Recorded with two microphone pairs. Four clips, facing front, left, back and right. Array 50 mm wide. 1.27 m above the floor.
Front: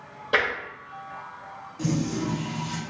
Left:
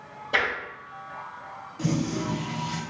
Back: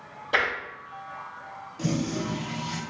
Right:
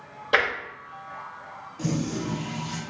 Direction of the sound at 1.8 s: Straight behind.